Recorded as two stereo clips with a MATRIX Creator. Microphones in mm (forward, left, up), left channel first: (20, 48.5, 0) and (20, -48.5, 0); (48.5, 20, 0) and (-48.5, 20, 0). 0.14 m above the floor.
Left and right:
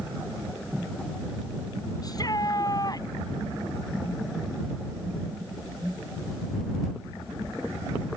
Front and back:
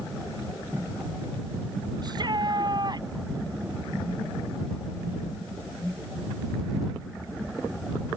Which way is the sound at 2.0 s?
140° left.